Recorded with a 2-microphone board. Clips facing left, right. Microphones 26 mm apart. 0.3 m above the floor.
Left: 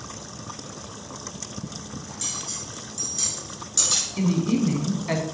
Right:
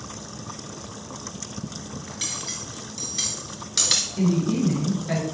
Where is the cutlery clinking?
40° right (ahead or behind), 2.5 m.